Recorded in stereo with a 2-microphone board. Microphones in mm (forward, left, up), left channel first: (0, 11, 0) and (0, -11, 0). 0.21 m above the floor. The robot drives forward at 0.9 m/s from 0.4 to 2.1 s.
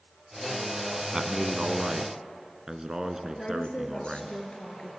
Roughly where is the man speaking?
Right.